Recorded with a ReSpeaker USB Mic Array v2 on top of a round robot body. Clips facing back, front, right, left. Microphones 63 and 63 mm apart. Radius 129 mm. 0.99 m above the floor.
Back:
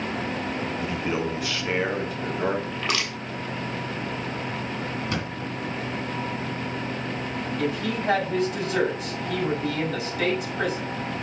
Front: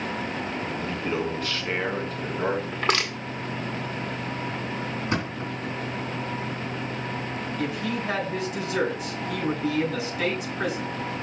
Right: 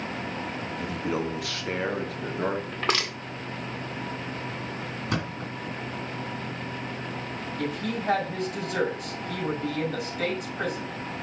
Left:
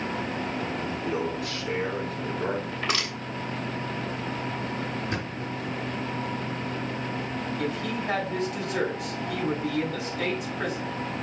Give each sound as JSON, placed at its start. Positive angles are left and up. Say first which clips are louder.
{"t": 0.8, "sound": "a man speaking", "louder": "even, right 3 dB", "azimuth_deg": -105, "distance_m": 1.5}
{"t": 2.7, "sound": "crushing", "louder": "front 3 dB, right 2 dB", "azimuth_deg": -50, "distance_m": 1.7}
{"t": 5.1, "sound": "a thud", "louder": "front 1 dB, even", "azimuth_deg": -65, "distance_m": 2.5}
{"t": 7.6, "sound": "a woman speaking", "louder": "back 2 dB, right 2 dB", "azimuth_deg": -130, "distance_m": 5.0}